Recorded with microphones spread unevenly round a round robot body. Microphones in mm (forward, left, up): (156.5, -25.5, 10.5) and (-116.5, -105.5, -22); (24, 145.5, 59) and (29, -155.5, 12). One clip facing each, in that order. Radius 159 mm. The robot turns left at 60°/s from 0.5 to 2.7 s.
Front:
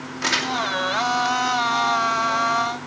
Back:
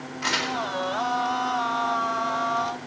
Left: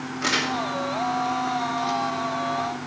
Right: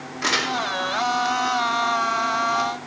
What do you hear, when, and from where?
0.2 s crumpling: 5° right, 2.5 m